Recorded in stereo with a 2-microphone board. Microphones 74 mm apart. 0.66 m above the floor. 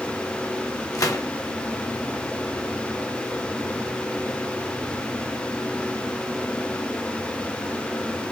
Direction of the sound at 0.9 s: 55° left (ahead or behind).